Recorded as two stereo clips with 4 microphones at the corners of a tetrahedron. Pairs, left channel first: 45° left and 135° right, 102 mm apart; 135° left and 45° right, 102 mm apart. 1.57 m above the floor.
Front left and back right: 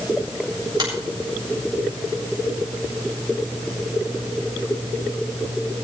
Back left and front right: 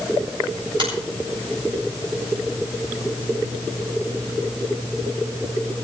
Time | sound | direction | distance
0.8 | a finger snap | 80° right | 8.5 m